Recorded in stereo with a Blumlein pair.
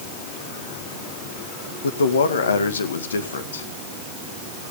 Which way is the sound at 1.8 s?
65° left.